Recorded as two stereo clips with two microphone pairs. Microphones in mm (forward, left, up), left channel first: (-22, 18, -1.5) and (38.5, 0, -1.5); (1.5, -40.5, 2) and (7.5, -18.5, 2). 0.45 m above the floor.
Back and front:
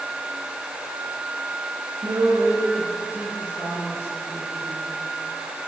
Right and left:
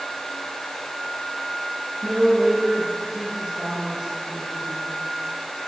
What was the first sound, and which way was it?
A woman speaking, 10° right.